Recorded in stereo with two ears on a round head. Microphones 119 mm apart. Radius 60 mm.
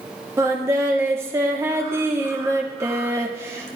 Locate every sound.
0.4 s singing: 20° right (ahead or behind), 1.8 m